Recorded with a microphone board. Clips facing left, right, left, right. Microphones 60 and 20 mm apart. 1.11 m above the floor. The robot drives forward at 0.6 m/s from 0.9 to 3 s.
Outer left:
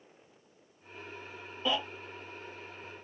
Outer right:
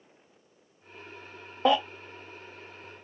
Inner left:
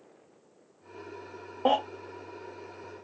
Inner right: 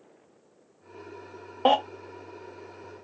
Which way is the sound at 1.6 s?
60° right (ahead or behind).